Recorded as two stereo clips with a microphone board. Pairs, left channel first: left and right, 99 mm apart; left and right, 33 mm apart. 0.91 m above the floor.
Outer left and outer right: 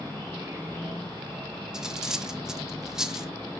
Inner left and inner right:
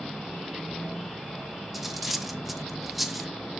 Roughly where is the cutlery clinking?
Centre.